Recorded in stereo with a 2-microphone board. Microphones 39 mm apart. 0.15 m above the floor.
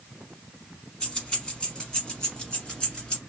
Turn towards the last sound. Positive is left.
turn(degrees=20)  # may be behind; listen again after turning